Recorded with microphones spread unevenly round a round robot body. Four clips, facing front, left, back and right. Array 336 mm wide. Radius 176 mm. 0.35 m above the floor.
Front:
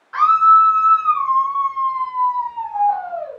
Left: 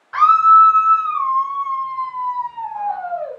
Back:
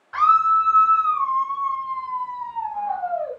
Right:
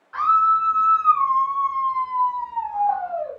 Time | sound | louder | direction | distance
0.1 | a scream | left 7 dB, front 5 dB | 105° left | 1.0 m